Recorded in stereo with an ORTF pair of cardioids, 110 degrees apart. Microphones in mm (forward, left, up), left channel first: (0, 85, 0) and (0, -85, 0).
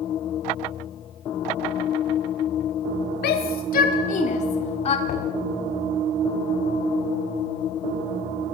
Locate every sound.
3.2 s a shout: 70° left, 1.5 m; by 5.0 s 35° left, 2.5 m
5.1 s knocking: 60° left, 5 m